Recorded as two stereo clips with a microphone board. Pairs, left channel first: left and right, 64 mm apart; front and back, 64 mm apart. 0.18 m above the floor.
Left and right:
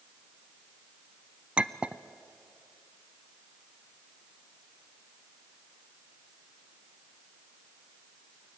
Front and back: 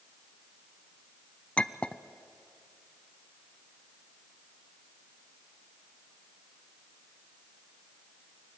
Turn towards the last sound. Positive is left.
turn(degrees=-45)